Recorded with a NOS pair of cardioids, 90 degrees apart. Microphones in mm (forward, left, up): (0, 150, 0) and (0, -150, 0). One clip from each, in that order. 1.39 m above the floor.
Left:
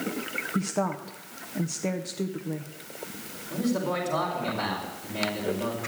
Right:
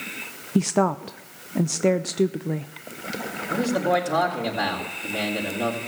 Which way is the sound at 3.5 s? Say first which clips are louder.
Right 7 dB; 65° right.